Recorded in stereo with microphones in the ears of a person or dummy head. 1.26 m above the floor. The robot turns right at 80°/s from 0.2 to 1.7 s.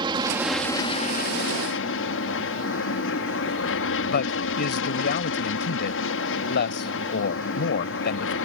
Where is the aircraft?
25° right; by 8.4 s 95° left.